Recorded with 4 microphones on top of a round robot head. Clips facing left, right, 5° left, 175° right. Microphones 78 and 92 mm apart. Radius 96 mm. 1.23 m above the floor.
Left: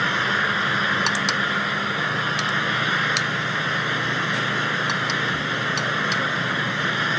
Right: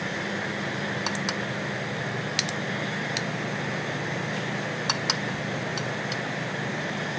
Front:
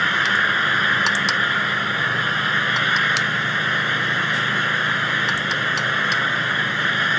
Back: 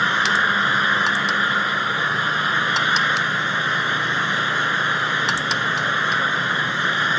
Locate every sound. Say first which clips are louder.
0.0 s an engine running: left 9 dB, back 1 dB; 115° left